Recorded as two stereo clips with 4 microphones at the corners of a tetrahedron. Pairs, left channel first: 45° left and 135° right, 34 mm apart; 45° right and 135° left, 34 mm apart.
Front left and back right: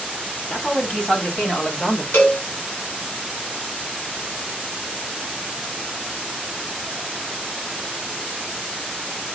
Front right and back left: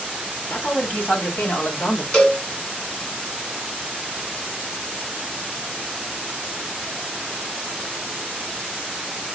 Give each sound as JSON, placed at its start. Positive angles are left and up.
{"t": 0.5, "sound": "a man speaking", "azimuth_deg": -10, "distance_m": 2.0}
{"t": 2.1, "sound": "a cowbell", "azimuth_deg": 25, "distance_m": 2.5}